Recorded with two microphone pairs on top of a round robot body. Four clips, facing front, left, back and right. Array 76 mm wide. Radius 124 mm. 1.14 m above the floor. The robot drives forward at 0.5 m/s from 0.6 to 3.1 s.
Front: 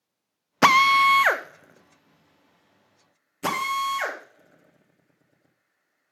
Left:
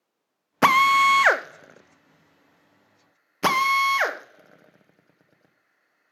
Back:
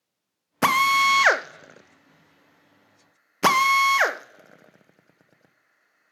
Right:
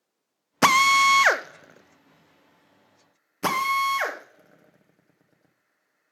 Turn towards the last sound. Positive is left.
turn(degrees=175)